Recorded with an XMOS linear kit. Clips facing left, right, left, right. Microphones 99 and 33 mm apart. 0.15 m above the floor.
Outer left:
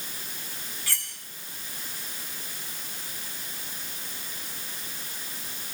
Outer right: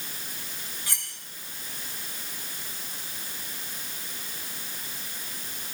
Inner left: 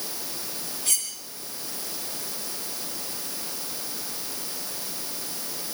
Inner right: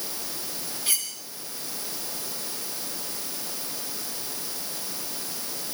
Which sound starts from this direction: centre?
Cutlery clinking, at 0.9 s.